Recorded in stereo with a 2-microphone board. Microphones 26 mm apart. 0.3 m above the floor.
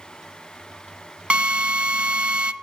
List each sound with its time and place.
1.3 s a drill: 50° right (ahead or behind), 0.7 m